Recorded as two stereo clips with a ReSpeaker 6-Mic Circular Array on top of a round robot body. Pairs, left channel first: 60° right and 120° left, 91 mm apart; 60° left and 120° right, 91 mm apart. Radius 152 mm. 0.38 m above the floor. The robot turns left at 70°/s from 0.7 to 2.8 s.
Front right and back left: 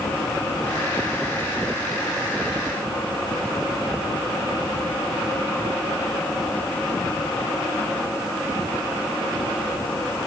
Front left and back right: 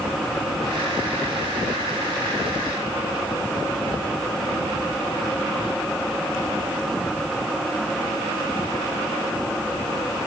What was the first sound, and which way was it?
Only background noise.